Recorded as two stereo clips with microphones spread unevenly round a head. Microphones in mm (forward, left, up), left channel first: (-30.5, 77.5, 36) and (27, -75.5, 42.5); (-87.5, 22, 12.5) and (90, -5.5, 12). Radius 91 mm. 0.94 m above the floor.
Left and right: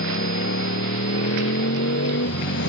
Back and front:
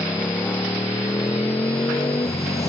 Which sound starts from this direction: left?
A motorcycle, at 0.0 s.